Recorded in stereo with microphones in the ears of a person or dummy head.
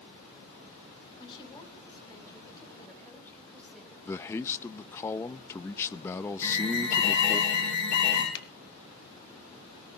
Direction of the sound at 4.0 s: 15° left (ahead or behind).